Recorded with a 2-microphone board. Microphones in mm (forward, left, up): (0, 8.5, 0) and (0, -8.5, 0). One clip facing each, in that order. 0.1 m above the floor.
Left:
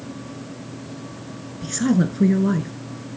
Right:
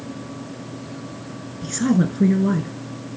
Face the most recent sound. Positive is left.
turn(degrees=5)  # may be behind; listen again after turning